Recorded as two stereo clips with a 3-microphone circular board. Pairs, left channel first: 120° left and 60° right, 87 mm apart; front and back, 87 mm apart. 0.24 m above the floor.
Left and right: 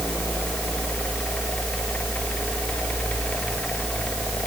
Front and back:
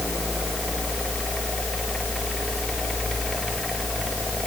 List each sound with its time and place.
Only background noise.